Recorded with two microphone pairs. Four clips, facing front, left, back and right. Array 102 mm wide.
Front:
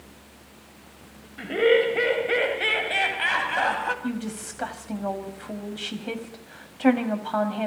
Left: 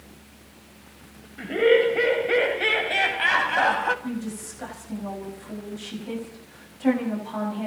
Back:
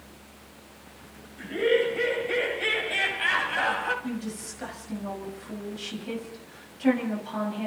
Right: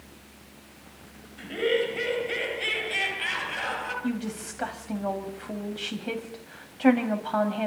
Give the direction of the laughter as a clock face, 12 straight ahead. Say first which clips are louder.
Left 7 dB, front 4 dB; 11 o'clock.